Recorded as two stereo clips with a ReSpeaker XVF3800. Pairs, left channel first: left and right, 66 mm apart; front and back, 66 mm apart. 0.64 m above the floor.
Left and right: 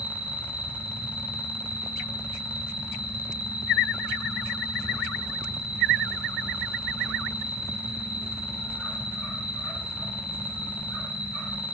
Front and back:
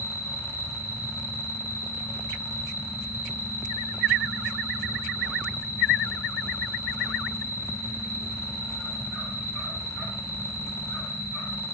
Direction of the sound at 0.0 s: 20° right.